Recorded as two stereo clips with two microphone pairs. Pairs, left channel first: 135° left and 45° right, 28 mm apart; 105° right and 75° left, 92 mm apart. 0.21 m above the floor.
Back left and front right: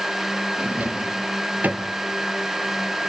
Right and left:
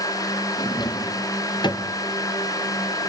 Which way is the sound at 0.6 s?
70° right.